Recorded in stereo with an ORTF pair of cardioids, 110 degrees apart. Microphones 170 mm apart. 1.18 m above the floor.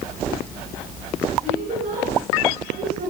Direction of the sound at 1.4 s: 55° right.